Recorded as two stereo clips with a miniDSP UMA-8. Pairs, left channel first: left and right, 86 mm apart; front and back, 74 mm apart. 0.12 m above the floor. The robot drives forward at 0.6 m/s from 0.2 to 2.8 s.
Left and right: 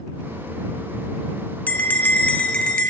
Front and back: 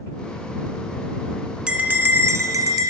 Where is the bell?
120° left, 0.6 m; by 2.9 s 165° left, 1.0 m.